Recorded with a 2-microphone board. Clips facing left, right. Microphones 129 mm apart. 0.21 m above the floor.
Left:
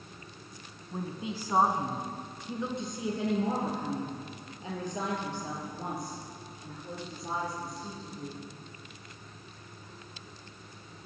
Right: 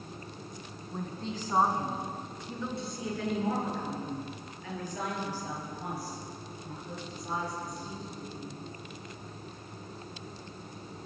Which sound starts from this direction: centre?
A woman speaking, at 0.9 s.